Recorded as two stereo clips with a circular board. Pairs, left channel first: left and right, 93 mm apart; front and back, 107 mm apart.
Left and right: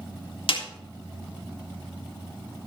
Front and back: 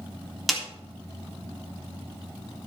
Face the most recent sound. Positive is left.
turn(degrees=90)